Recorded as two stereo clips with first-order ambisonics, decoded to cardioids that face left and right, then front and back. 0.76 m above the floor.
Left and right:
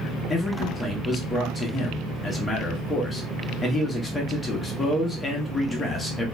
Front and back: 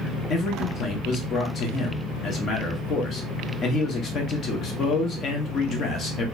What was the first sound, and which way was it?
A man speaking, 25° left.